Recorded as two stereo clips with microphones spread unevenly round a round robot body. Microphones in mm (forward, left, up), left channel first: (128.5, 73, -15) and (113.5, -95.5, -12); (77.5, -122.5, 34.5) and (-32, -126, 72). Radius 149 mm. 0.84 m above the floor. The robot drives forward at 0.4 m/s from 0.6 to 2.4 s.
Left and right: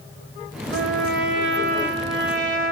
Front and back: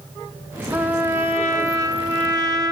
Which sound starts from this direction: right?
A trumpet, at 0.7 s.